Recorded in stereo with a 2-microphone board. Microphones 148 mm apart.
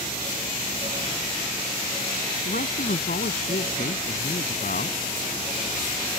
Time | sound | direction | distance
2.5 | a man speaking | 70° left (ahead or behind) | ?